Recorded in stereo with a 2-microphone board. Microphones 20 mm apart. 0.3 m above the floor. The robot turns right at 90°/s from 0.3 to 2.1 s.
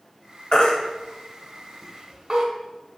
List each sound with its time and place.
0.5 s a baby crying: 45° left (ahead or behind), 0.6 m; by 2.5 s 30° right (ahead or behind), 0.6 m